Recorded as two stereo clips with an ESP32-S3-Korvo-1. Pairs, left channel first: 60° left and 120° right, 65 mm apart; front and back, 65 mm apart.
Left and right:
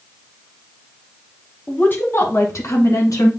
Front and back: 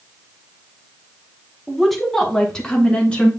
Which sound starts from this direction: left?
A woman speaking, at 1.7 s.